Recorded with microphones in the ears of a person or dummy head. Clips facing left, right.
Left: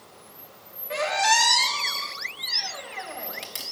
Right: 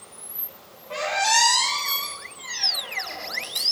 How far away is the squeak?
About 0.9 m.